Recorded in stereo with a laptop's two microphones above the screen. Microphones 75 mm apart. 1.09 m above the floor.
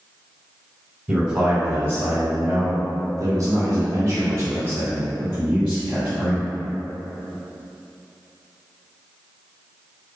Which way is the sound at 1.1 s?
25° right (ahead or behind).